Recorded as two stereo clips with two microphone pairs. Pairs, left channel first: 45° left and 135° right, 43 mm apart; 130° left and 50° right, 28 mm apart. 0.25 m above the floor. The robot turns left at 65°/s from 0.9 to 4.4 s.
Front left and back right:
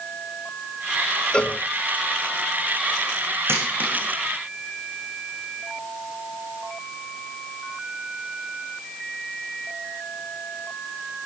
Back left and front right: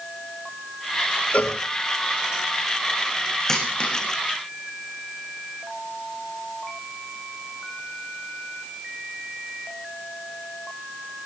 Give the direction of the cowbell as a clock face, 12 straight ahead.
8 o'clock.